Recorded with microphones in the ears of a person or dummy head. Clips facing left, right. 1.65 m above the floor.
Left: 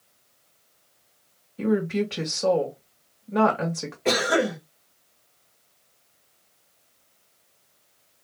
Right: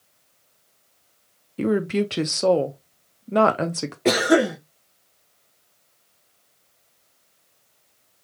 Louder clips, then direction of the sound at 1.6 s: Right 2 dB; 50° right (ahead or behind).